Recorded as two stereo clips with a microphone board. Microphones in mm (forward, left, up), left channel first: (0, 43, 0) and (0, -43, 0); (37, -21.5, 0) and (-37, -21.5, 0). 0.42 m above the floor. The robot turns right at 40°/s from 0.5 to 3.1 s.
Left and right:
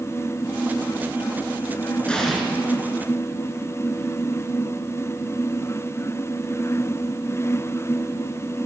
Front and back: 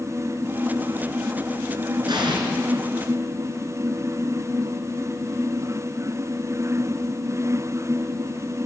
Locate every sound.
2.1 s an explosion: 165° left, 3.5 m; by 2.4 s straight behind, 3.5 m